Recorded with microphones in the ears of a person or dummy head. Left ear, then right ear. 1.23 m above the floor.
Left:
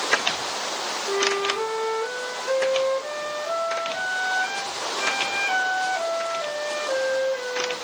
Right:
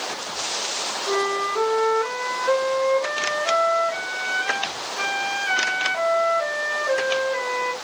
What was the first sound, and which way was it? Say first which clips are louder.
A flute: even; 55° right (ahead or behind).